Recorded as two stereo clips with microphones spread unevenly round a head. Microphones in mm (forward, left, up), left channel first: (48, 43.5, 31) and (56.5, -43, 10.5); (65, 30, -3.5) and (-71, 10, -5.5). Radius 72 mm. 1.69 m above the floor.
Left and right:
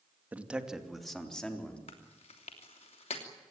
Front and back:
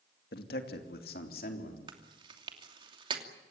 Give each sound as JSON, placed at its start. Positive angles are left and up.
{"t": 0.3, "sound": "a man speaking", "azimuth_deg": -10, "distance_m": 2.5}
{"t": 1.9, "sound": "chewing", "azimuth_deg": 135, "distance_m": 3.0}